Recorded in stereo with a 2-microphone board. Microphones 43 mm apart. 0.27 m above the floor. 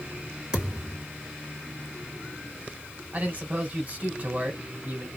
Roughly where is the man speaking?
Right.